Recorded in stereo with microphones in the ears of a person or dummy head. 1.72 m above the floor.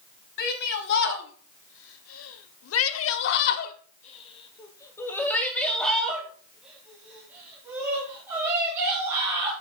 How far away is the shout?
About 1.9 m.